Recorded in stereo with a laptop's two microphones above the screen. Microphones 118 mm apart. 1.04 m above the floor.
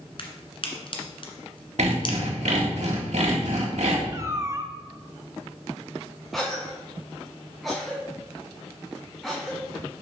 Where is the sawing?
75° right (ahead or behind), 1.8 m.